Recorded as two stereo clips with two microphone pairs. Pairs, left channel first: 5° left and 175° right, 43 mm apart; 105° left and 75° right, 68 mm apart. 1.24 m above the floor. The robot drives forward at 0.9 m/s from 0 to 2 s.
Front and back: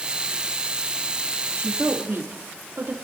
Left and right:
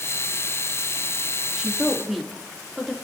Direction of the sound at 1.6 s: 160° right.